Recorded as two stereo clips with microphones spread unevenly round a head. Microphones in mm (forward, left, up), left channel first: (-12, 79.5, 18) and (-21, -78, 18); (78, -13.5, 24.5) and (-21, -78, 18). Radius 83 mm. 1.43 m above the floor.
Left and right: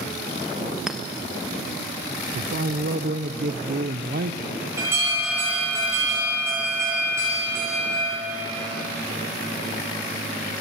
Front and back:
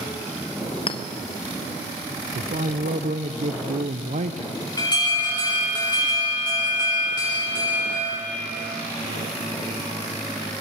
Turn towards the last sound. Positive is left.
turn(degrees=-20)